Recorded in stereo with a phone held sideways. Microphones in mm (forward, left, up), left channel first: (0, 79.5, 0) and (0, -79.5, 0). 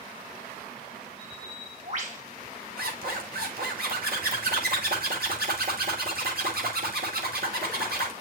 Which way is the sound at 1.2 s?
50° right (ahead or behind).